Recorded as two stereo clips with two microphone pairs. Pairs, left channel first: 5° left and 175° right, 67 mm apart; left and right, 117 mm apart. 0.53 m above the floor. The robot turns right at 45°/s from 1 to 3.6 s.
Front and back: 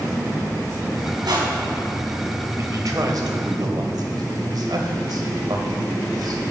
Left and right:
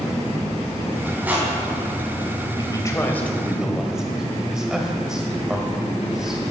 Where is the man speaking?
140° left, 1.8 m; by 6.4 s 175° right, 1.8 m.